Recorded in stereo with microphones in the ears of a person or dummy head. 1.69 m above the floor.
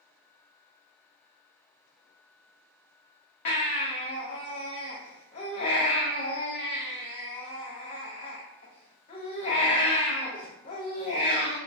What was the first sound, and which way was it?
A baby crying, 20° left (ahead or behind).